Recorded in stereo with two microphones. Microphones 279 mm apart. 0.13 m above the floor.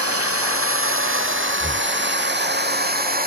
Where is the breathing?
5° left (ahead or behind).